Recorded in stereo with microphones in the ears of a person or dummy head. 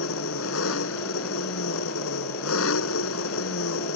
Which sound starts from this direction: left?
An engine running, at 0.0 s.